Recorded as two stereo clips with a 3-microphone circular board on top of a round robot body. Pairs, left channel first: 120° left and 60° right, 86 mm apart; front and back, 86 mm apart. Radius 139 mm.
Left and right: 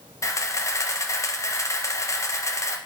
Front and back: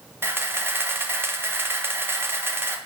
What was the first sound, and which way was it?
A camera shutter, 135° left.